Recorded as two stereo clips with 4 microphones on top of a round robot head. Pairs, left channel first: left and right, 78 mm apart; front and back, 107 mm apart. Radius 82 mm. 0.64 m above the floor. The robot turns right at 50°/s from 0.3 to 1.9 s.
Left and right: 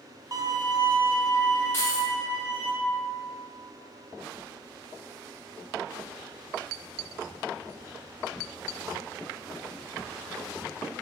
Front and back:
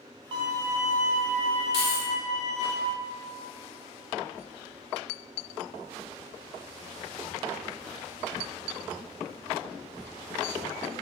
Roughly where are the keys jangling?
Ahead right.